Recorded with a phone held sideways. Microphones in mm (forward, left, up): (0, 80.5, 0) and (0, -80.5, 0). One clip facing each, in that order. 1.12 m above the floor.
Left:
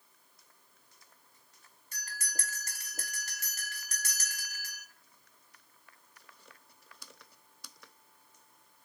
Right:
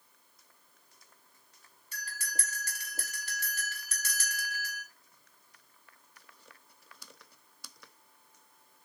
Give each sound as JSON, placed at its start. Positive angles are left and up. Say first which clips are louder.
{"t": 1.9, "sound": "a bell", "louder": "right 2 dB", "side_deg": 45, "distance_m": 1.3}